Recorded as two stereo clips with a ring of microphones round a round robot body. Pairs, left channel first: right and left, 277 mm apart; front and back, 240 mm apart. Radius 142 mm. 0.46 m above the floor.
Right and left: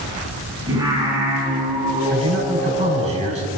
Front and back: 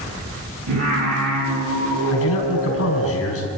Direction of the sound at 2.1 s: 25° left.